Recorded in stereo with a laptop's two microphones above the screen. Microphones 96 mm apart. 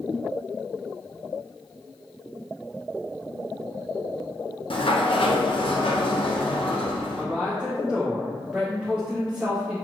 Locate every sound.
4.7 s a sliding door: 65° left (ahead or behind), 0.6 m
7.2 s a man speaking: 10° right (ahead or behind), 0.9 m